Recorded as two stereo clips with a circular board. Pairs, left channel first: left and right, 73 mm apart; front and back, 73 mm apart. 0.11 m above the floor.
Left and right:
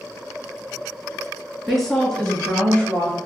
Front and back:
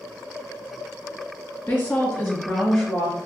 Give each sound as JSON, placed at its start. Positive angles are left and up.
{"t": 1.7, "sound": "a woman speaking", "azimuth_deg": -5, "distance_m": 1.4}